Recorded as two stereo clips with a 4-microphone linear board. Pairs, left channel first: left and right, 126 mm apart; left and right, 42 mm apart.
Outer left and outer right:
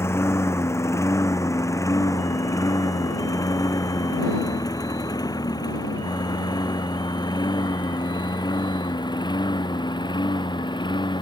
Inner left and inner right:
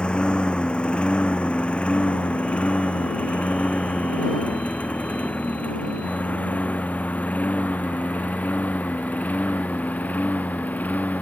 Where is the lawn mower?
20° left (ahead or behind); by 11.2 s 35° left (ahead or behind).